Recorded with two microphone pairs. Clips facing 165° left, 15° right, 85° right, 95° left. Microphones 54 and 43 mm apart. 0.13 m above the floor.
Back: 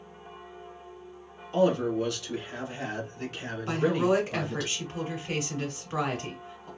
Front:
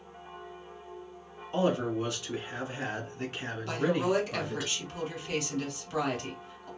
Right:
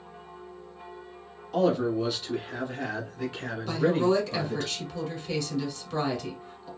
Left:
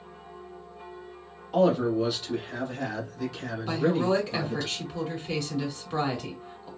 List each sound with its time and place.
1.5 s a man speaking: 40° left, 1.2 m; by 4.7 s 80° right, 1.6 m
3.7 s a woman speaking: 150° left, 1.3 m